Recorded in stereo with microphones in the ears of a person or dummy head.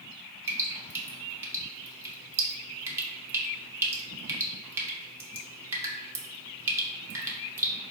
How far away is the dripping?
About 0.6 m.